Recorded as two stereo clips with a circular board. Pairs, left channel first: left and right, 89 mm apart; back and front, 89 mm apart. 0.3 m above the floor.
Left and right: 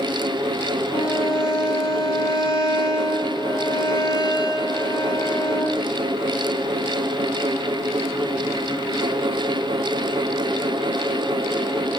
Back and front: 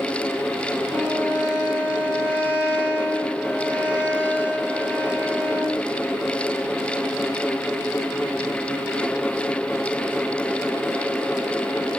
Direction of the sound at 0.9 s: 70° left.